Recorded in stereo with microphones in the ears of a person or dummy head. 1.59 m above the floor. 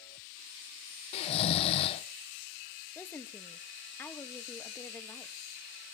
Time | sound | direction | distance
1.1 | snoring | 35° left (ahead or behind) | 0.6 m
3.0 | a woman speaking | 10° left (ahead or behind) | 1.1 m